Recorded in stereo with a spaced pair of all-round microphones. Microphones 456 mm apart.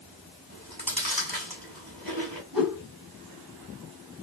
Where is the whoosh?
50° right (ahead or behind), 9 m.